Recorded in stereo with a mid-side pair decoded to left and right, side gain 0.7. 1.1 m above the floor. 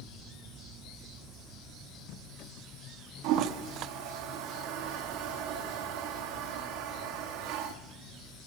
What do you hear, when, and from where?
3.2 s a toilet flushing: 65° right, 1.3 m